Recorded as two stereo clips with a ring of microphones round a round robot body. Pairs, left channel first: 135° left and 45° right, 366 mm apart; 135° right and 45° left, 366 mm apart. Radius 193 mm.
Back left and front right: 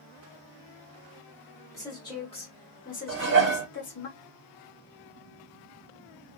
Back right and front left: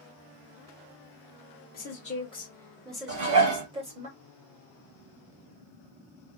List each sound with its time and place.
1.7 s a woman speaking: 150° right, 1.4 m; by 4.1 s 100° left, 1.5 m
3.1 s dishes clattering: 15° left, 1.3 m